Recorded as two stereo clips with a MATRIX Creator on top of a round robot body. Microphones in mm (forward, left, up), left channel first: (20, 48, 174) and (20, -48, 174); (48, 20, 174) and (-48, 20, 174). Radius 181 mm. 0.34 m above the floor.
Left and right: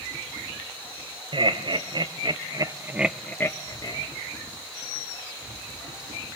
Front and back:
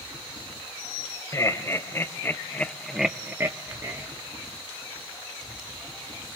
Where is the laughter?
60° right, 2.5 m; by 4.1 s 125° left, 1.7 m.